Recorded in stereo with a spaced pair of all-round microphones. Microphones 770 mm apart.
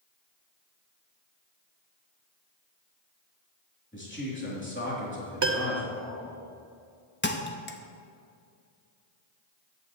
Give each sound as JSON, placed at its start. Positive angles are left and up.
{"t": 3.9, "sound": "a man speaking", "side_deg": 15, "distance_m": 3.0}
{"t": 5.4, "sound": "a piano", "side_deg": -35, "distance_m": 0.7}
{"t": 7.2, "sound": "a thud", "side_deg": 15, "distance_m": 0.6}